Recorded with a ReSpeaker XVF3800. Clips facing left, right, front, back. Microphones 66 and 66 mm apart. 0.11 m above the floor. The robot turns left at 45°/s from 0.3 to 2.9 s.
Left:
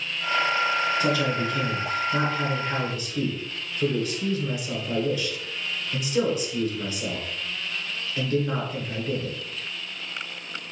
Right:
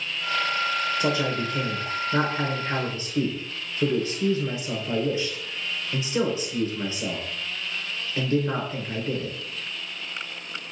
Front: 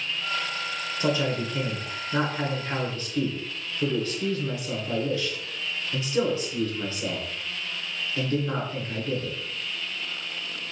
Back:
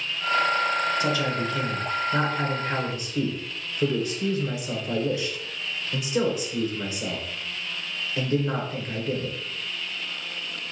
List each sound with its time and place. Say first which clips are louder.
1.0 s a man speaking: left 1 dB, back 1 dB; 35° right, 1.2 m; by 9.4 s 120° right, 1.2 m